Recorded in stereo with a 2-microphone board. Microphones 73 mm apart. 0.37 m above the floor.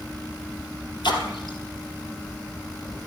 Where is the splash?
85° left, 3.5 m.